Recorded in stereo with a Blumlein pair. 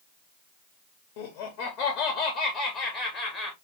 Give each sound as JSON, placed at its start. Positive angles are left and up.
{"t": 1.2, "sound": "laughter", "azimuth_deg": 45, "distance_m": 1.1}